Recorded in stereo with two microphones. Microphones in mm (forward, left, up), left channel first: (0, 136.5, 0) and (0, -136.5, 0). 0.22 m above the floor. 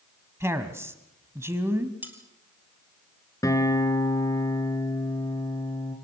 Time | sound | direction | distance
0.4 | a man speaking | 10° right (ahead or behind) | 1.6 m
2.0 | cutlery clinking | 5° right (ahead or behind) | 3 m
3.4 | a guitar | 10° left (ahead or behind) | 3 m